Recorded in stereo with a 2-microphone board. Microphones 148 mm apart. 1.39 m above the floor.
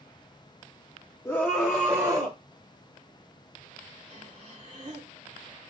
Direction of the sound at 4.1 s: 45° right (ahead or behind).